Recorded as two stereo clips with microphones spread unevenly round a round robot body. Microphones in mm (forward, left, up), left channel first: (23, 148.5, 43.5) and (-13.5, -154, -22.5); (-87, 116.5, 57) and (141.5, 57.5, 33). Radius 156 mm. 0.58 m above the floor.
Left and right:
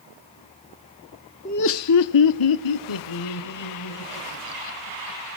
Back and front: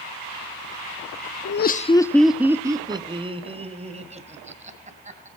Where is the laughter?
155° left, 0.7 m; by 5.3 s 45° left, 4 m.